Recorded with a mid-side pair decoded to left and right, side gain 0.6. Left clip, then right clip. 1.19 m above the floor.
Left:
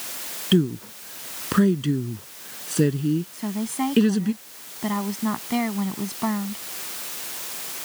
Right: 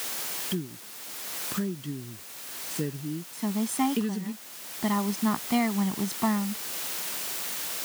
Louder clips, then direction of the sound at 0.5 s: Left 13 dB; 55° left.